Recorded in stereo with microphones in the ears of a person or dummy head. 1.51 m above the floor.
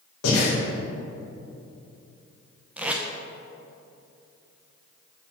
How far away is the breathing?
About 1.6 m.